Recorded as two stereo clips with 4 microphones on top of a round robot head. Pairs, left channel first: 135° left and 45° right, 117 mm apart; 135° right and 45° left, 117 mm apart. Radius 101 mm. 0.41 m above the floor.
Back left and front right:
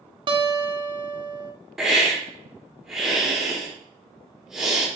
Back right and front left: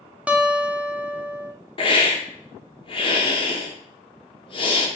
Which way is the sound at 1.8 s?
130° right.